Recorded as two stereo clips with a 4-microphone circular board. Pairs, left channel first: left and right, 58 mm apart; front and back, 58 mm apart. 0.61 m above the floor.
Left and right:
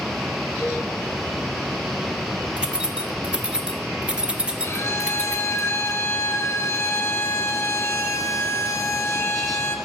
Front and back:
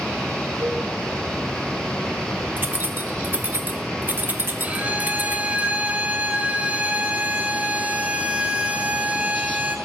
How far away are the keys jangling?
About 0.7 m.